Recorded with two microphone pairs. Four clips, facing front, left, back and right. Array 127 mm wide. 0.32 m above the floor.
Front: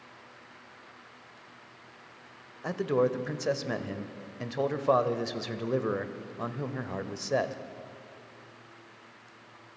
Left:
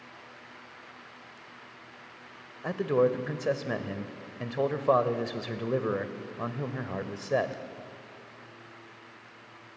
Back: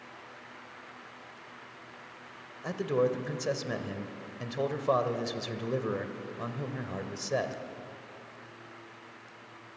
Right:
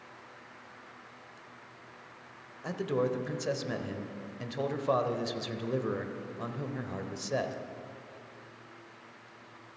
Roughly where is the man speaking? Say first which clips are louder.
Left 6 dB, front 1 dB; ahead left.